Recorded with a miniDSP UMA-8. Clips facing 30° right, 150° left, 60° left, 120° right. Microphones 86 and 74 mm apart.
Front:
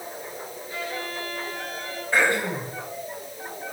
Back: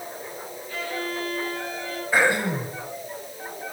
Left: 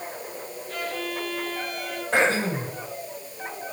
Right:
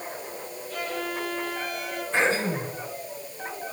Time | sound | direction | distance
0.7 | a violin | 40° left | 8 m
2.1 | throat clearing | 70° left | 4.5 m